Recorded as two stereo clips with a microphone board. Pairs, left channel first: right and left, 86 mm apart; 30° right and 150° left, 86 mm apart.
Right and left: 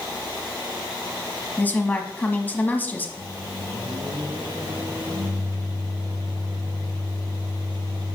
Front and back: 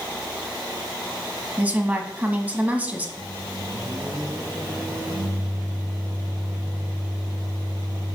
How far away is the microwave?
About 4.5 m.